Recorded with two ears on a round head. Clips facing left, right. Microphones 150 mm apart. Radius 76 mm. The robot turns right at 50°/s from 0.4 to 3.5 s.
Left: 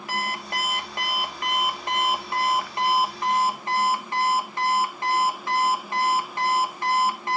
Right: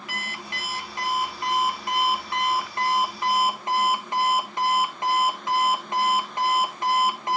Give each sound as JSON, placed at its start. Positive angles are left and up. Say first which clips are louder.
{"t": 0.1, "sound": "an alarm clock", "louder": "left 8 dB", "azimuth_deg": 45, "distance_m": 1.7}